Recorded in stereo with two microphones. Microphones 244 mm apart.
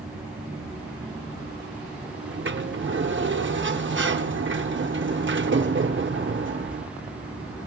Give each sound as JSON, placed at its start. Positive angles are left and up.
{"t": 2.2, "sound": "a sliding door", "side_deg": -50, "distance_m": 0.7}